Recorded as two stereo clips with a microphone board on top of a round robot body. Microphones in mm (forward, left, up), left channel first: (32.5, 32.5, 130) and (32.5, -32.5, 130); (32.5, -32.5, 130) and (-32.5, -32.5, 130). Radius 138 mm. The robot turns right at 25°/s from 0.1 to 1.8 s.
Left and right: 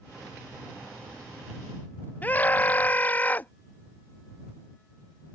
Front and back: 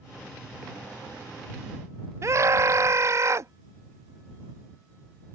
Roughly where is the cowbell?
I don't hear a cowbell.